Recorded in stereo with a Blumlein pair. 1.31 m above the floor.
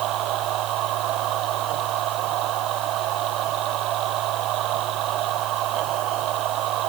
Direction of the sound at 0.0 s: 35° right.